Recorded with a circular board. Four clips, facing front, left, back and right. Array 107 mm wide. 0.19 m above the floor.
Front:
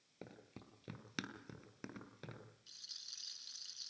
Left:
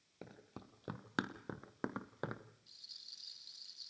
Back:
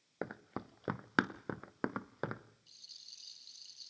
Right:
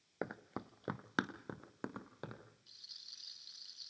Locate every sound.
0.2 s running footsteps: 135° right, 1.3 m; by 2.4 s 160° left, 1.9 m
2.7 s a rattle: 20° right, 2 m